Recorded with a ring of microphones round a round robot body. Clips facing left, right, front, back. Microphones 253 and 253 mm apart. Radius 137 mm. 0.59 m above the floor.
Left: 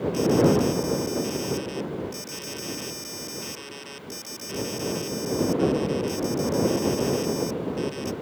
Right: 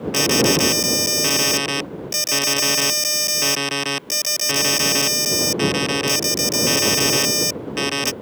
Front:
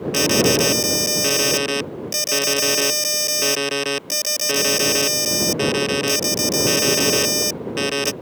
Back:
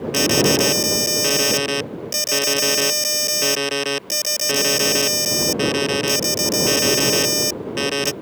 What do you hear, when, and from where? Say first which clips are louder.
0.1 s an alarm: right 1 dB, even; 90° right